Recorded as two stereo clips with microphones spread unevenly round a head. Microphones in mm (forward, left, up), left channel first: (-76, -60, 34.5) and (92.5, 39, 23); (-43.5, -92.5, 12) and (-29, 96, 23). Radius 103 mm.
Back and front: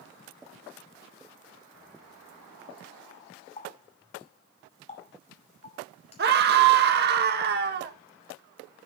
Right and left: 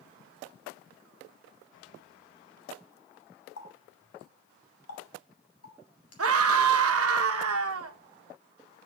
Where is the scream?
75° left, 1.6 m.